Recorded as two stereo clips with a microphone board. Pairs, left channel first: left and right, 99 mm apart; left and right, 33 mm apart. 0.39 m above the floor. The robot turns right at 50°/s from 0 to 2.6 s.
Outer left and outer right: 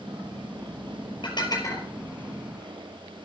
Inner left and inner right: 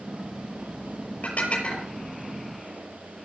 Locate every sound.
1.2 s dishes clattering: 55° left (ahead or behind), 5.5 m; by 1.9 s 25° left (ahead or behind), 5.5 m